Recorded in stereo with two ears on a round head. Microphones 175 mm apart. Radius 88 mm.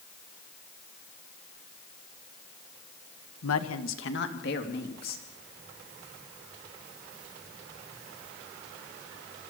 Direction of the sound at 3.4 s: 85° left.